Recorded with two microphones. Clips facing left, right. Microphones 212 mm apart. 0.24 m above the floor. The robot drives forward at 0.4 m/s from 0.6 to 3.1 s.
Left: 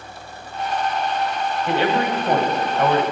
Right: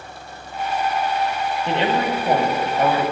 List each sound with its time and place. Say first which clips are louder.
1.7 s a man speaking: left 1 dB; 20° right (ahead or behind), 1.1 m